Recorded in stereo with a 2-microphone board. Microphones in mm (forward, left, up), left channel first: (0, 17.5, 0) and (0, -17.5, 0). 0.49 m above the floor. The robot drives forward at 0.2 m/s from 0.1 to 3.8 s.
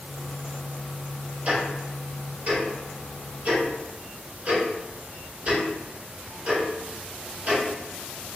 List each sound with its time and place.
1.4 s ticking: 50° right (ahead or behind), 1.6 m; by 7.6 s 45° right (ahead or behind), 1.7 m